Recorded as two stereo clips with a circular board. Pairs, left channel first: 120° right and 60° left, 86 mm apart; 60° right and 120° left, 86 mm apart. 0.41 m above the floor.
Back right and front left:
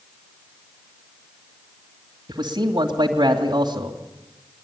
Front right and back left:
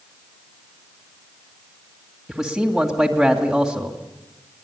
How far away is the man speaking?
About 2.5 m.